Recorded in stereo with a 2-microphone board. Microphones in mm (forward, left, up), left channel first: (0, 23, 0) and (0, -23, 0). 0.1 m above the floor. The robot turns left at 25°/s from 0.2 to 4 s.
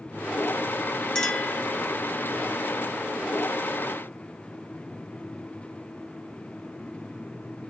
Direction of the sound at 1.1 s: 15° left (ahead or behind).